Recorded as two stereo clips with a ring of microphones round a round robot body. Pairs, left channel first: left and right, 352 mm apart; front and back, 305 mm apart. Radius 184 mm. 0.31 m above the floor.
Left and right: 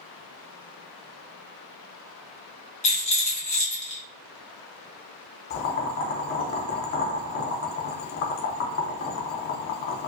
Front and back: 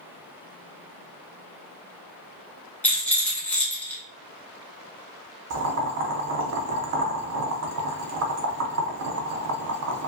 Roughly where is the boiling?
Behind left.